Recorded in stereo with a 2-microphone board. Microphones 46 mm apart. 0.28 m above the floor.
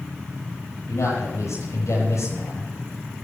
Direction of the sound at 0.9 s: 80° left.